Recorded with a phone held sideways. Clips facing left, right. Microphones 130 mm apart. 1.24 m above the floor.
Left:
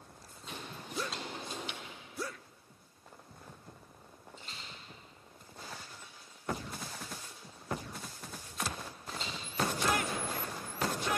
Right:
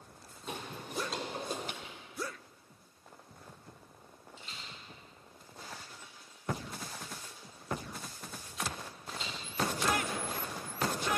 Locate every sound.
0.5 s footsteps: 55° right (ahead or behind), 2 m; by 1.7 s 45° right (ahead or behind), 1.8 m
1.8 s whispering: 70° right (ahead or behind), 0.9 m
4.4 s a rattle: 50° left (ahead or behind), 5.5 m